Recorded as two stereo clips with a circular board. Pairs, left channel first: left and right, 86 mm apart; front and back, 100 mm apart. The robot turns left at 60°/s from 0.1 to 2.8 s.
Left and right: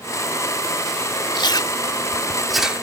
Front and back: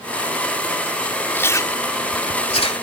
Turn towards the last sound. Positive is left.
turn(degrees=-15)